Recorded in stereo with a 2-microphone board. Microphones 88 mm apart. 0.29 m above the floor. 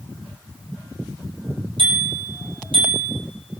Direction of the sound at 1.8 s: 75° right (ahead or behind).